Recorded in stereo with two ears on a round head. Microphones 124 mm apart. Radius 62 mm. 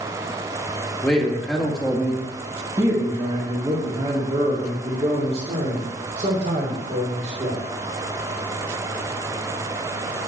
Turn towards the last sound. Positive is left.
turn(degrees=-55)  # may be behind; listen again after turning